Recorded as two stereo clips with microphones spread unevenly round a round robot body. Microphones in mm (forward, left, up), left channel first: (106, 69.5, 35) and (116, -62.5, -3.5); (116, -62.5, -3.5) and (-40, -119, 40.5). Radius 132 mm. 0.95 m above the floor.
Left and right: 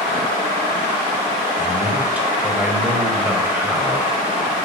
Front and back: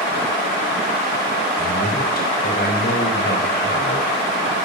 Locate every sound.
1.6 s a man speaking: 5° right, 5 m